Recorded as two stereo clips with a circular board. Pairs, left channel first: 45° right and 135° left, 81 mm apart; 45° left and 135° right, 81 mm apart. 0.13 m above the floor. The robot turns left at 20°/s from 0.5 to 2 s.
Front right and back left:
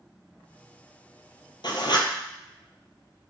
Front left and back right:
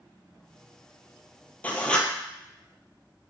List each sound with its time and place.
1.6 s writing: 25° right, 0.7 m; by 2.1 s 35° right, 0.7 m